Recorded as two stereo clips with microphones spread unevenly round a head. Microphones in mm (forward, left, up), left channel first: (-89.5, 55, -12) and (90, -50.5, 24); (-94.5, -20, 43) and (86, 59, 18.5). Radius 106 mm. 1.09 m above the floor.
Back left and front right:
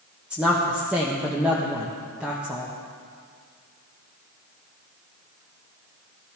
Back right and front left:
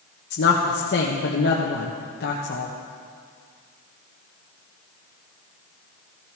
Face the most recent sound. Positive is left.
turn(degrees=-120)